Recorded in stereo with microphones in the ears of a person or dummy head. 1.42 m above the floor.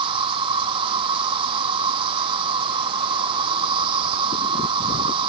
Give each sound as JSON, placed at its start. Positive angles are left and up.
{"t": 0.0, "sound": "an insect", "side_deg": -30}